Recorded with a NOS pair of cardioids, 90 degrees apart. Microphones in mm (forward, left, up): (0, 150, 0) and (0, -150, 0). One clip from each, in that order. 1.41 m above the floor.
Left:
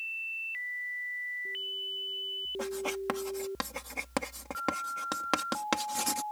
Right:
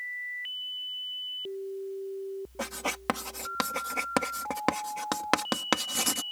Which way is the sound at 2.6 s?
35° right.